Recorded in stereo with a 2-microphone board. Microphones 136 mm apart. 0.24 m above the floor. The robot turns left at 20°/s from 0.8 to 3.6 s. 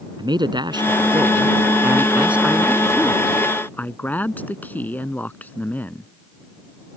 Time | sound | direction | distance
0.2 | a man speaking | 140° right | ?